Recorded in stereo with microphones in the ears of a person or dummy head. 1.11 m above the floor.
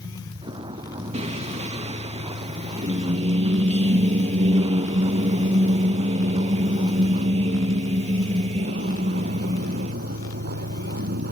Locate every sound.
0.0 s a vehicle: 25° right (ahead or behind); by 11.3 s 60° right (ahead or behind)
1.1 s singing: 30° right (ahead or behind)